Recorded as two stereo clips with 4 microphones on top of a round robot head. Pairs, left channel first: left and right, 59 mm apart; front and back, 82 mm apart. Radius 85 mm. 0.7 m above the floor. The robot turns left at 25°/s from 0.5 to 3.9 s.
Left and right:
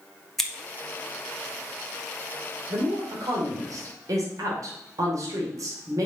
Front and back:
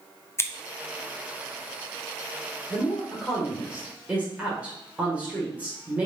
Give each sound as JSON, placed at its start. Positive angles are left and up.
{"t": 0.4, "sound": "scissors", "azimuth_deg": 15, "distance_m": 1.3}
{"t": 2.7, "sound": "a woman speaking", "azimuth_deg": -75, "distance_m": 2.5}